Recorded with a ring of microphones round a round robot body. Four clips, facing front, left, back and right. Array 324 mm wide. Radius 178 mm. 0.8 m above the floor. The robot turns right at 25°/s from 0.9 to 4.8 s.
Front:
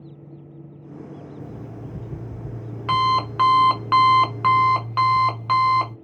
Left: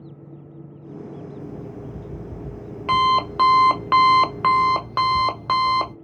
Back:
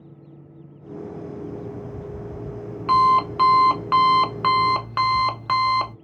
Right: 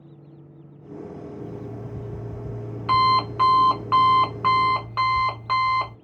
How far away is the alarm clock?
About 1.7 m.